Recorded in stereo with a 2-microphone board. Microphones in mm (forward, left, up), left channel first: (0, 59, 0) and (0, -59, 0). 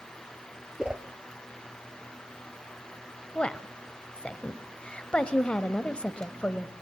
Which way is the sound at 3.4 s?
10° left (ahead or behind).